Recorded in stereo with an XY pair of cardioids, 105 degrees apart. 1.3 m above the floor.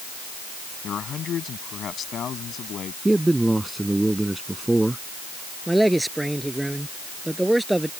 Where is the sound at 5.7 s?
10° right.